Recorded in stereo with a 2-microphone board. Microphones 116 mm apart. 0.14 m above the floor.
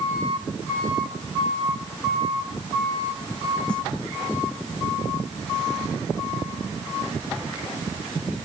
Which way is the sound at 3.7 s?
5° left (ahead or behind).